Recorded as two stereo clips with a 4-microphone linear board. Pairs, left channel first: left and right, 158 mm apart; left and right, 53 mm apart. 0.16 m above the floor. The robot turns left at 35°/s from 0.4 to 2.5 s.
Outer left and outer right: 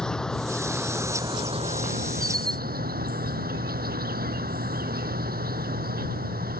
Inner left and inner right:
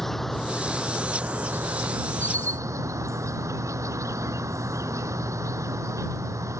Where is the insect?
5° left; by 6.6 s 70° right.